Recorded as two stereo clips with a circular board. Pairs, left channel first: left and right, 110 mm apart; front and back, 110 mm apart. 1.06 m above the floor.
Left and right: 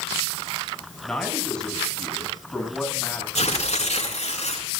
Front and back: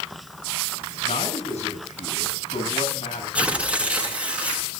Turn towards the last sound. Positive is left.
turn(degrees=100)